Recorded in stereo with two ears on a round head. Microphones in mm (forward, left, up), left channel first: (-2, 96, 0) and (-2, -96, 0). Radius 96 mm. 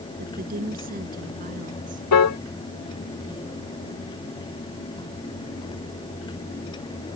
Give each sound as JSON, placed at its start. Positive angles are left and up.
{"t": 0.2, "sound": "a woman speaking", "side_deg": -40}
{"t": 2.1, "sound": "a piano", "side_deg": 80}